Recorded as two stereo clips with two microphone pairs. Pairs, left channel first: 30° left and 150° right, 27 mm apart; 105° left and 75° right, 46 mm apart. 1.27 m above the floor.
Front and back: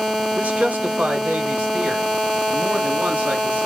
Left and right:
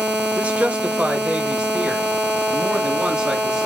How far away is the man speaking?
About 1.4 m.